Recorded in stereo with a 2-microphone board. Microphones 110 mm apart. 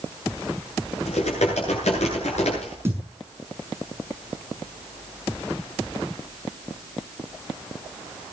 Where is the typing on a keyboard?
80° left, 9.5 m.